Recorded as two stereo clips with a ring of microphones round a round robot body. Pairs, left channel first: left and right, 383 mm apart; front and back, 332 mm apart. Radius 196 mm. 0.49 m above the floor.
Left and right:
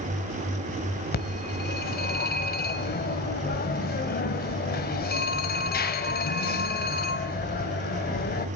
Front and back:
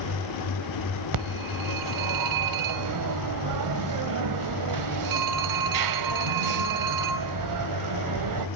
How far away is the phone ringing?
About 1.6 m.